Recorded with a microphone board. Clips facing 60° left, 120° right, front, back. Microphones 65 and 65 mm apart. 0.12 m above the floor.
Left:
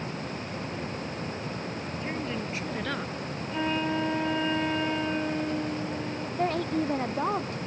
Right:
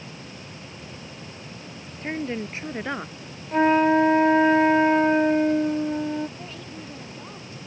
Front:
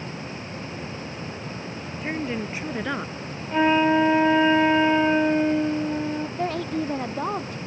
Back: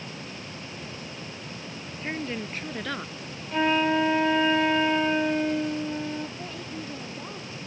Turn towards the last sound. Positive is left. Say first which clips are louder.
# left 12 dB, front 11 dB
turn(degrees=25)